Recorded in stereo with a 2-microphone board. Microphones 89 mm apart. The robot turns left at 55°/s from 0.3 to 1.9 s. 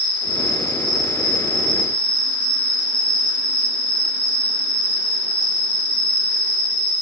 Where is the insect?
105° left, 1.7 m; by 7.0 s 15° left, 1.7 m.